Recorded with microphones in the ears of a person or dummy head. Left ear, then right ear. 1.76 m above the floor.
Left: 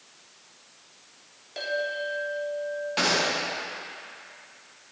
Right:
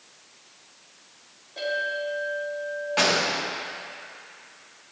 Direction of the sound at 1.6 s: 60° left (ahead or behind).